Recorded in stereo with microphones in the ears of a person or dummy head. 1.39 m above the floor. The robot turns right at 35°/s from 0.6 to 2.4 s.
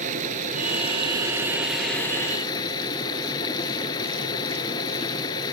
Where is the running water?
40° right; by 5.5 s 20° left.